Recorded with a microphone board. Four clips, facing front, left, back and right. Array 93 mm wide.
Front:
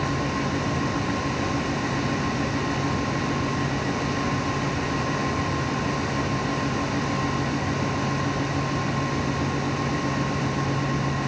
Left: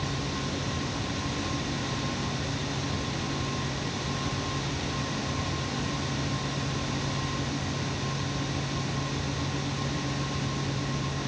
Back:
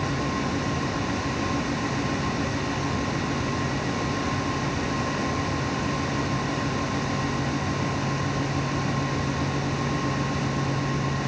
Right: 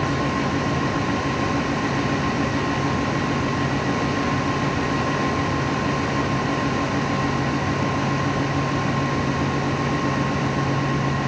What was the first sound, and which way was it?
Only background noise.